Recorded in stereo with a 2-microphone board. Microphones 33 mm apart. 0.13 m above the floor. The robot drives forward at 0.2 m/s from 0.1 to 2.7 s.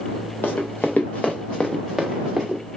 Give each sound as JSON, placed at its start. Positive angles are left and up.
{"t": 0.4, "sound": "running footsteps", "side_deg": 85, "distance_m": 0.9}